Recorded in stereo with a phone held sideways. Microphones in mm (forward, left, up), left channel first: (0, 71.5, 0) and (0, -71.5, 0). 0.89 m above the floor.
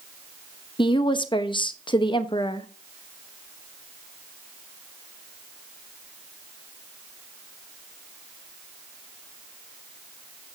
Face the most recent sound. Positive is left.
turn(degrees=35)  # may be behind; listen again after turning